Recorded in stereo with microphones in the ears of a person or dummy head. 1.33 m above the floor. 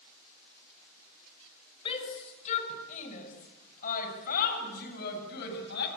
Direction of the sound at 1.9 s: 30° left (ahead or behind).